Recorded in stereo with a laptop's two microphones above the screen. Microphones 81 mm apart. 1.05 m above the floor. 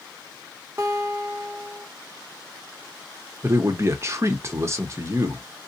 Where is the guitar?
30° right (ahead or behind), 1.2 m.